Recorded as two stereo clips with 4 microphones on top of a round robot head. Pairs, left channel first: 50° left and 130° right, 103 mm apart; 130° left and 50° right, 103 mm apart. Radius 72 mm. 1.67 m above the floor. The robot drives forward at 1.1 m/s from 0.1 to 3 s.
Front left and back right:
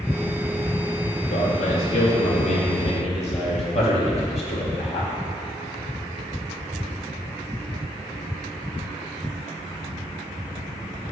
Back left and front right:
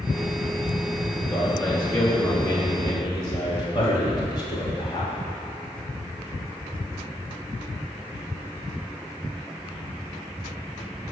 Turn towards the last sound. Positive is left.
turn(degrees=80)